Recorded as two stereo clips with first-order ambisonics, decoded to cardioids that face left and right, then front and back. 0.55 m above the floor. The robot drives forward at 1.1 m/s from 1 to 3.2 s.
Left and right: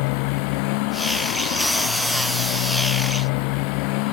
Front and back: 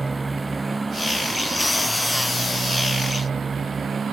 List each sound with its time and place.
0.0 s a motorcycle: 100° left; by 4.1 s 105° left